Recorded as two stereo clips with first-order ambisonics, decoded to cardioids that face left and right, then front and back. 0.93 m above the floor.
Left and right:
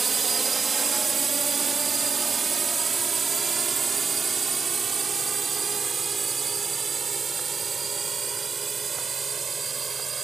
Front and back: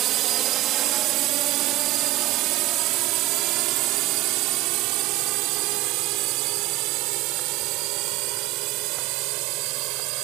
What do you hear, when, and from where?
0.0 s a drone: 160° right